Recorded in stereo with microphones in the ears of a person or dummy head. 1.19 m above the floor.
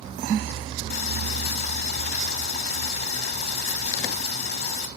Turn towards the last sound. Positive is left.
turn(degrees=65)  # may be behind; listen again after turning